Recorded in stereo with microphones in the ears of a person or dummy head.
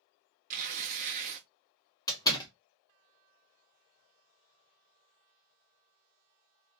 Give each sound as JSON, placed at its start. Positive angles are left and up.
{"t": 0.5, "sound": "tearing paper", "side_deg": -45, "distance_m": 0.7}
{"t": 2.1, "sound": "a door slam", "side_deg": 20, "distance_m": 0.8}